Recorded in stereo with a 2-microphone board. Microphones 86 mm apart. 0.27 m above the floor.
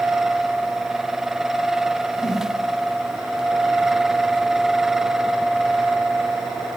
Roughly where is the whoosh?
Left.